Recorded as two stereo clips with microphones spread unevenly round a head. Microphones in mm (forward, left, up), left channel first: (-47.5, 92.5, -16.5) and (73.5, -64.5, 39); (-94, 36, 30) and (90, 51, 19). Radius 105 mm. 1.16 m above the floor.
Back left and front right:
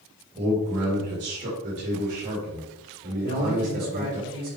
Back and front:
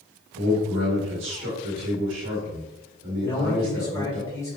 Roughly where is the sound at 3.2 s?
Right.